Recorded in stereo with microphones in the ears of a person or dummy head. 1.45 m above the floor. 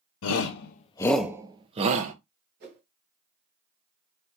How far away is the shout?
About 0.8 m.